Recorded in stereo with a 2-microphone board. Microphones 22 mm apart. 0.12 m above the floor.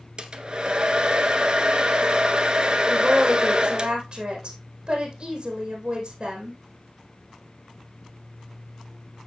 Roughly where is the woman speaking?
Right.